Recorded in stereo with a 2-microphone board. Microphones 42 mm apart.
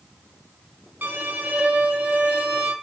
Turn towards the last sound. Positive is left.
turn(degrees=-45)  # may be behind; listen again after turning